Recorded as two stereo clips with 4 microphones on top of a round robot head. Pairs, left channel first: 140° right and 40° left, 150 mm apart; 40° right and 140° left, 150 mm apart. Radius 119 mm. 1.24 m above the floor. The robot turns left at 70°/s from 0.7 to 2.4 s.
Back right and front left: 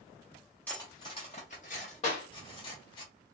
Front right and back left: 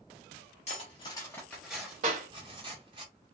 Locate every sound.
0.7 s cutlery clinking: 65° right, 0.6 m; by 3.0 s 175° left, 0.6 m
2.0 s a clap: 175° left, 1.3 m; by 2.3 s 160° left, 1.3 m